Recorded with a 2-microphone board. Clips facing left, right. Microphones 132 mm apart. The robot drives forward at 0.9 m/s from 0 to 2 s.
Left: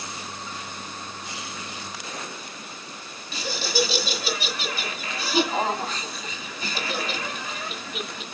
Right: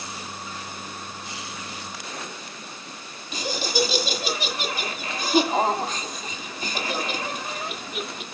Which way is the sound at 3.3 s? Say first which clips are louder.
Right 1 dB; 20° right (ahead or behind).